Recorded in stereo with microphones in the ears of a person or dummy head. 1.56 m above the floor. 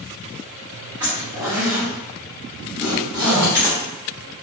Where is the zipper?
10° right (ahead or behind), 1.1 m.